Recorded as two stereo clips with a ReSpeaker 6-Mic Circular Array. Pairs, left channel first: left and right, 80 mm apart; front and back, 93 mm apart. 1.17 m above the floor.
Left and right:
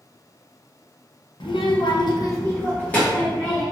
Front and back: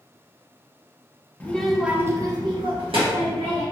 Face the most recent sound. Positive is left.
turn(degrees=175)